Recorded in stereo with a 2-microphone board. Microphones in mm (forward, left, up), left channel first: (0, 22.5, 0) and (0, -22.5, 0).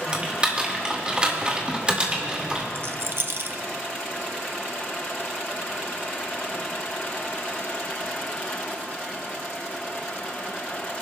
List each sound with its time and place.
0.1 s typing on a keyboard: 25° right (ahead or behind), 1.9 m
2.8 s a rattle: 55° right (ahead or behind), 0.6 m